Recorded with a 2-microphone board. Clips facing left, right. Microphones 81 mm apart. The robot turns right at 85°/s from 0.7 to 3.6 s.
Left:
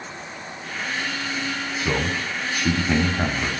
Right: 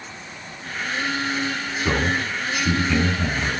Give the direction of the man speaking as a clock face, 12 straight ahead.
12 o'clock.